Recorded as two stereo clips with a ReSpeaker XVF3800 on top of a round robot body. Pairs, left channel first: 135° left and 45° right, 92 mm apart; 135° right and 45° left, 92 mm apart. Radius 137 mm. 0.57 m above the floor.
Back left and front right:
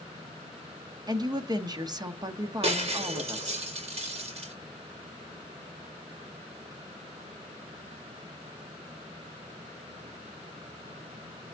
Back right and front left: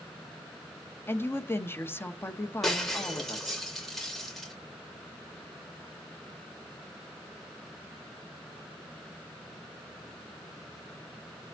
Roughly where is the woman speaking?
Right.